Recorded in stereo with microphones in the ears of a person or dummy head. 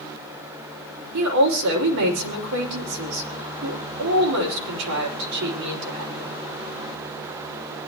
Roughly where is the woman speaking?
Right.